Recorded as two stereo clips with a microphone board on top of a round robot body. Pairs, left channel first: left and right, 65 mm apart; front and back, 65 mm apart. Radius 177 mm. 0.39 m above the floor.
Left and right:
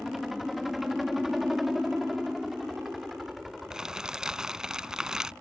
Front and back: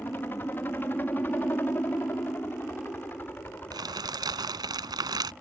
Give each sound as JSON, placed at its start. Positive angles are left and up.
{"t": 0.0, "sound": "a helicopter", "azimuth_deg": -5}
{"t": 3.7, "sound": "crumpling", "azimuth_deg": -170}